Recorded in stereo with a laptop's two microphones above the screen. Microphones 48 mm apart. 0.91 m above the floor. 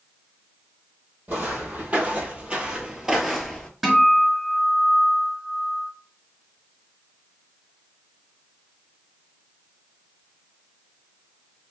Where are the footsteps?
40° right (ahead or behind), 1.5 m; by 3.7 s 10° left (ahead or behind), 0.9 m.